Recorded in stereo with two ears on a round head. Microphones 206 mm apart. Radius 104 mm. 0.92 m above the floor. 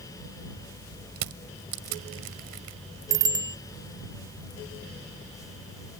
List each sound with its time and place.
1.2 s crushing: 80° right
3.1 s a bicycle bell: 15° right (ahead or behind)